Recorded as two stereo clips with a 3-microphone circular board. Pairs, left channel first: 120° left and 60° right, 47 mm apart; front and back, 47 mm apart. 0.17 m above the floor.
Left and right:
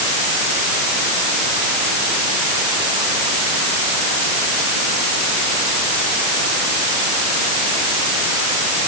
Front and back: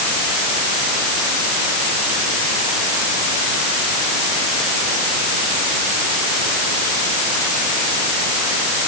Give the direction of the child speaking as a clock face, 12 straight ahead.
I don't hear a child speaking.